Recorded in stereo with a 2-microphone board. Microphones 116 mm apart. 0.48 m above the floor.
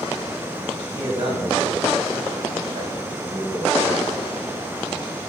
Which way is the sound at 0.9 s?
45° right (ahead or behind).